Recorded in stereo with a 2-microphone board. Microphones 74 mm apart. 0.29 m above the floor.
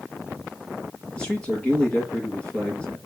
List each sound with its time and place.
1.1 s a man speaking: 10° left (ahead or behind), 4 m